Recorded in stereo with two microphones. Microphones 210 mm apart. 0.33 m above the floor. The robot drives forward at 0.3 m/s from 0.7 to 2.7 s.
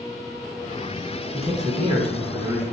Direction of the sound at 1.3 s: 30° right (ahead or behind).